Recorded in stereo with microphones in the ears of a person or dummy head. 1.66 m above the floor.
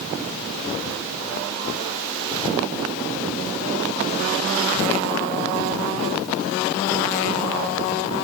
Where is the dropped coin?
I don't hear a dropped coin.